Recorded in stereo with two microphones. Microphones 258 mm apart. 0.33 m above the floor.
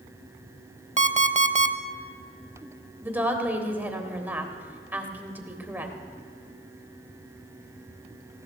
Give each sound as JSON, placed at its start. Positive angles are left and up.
{"t": 1.0, "sound": "an alarm clock", "side_deg": -30, "distance_m": 0.6}
{"t": 3.0, "sound": "a woman speaking", "side_deg": -5, "distance_m": 1.4}